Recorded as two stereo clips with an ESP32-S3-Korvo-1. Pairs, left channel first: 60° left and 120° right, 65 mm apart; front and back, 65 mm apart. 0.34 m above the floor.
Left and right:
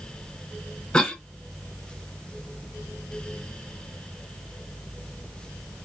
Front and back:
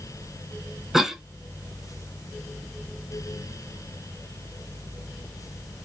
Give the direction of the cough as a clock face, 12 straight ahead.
8 o'clock.